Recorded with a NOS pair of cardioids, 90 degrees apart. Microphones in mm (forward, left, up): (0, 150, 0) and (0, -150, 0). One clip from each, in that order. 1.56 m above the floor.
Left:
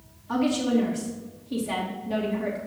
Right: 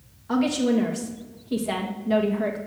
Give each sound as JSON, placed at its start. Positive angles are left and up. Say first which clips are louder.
{"t": 0.3, "sound": "a woman speaking", "louder": "right 2 dB", "azimuth_deg": -40, "distance_m": 2.5}